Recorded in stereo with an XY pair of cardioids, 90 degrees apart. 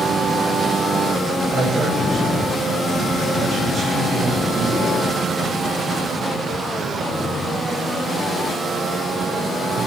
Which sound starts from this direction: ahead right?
A man speaking, at 1.5 s.